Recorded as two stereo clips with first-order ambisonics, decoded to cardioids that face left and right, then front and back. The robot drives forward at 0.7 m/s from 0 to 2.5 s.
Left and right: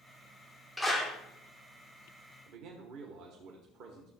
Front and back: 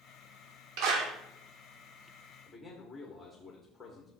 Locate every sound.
0.8 s a clap: straight behind, 1.7 m
2.5 s a man speaking: 85° right, 1.3 m; by 4.1 s 90° right, 1.3 m